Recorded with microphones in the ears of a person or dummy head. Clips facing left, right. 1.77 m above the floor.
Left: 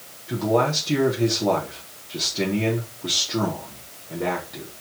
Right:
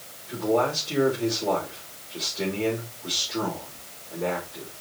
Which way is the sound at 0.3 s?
75° left (ahead or behind).